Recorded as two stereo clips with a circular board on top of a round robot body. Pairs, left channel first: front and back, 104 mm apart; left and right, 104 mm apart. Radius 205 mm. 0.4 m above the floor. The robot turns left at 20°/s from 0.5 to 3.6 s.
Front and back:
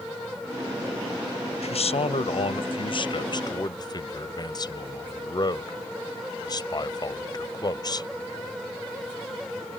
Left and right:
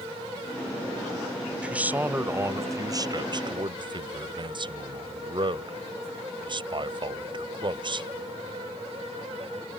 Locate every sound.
1.6 s a man speaking: 10° right; by 8.1 s 50° right